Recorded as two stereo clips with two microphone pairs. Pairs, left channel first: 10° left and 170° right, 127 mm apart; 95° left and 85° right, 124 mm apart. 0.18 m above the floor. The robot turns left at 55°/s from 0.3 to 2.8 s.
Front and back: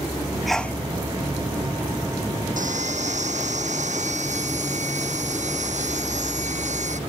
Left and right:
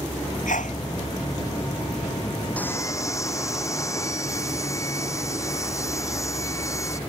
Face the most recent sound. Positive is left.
turn(degrees=160)